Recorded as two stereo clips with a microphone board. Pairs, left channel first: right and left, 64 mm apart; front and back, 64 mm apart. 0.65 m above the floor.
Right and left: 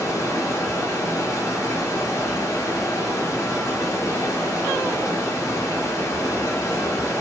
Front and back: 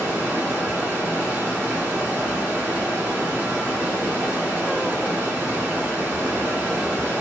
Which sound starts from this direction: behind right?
Running water, at 0.0 s.